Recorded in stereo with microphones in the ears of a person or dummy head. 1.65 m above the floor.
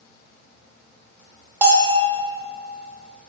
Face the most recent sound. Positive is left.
turn(degrees=-15)  # may be behind; listen again after turning